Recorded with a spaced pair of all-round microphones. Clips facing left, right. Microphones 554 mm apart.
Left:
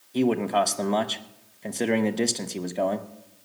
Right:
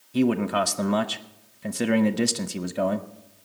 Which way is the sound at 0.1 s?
35° right (ahead or behind).